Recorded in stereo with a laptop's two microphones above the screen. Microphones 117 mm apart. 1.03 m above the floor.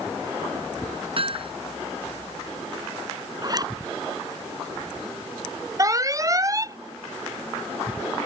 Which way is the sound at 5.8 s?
30° right (ahead or behind).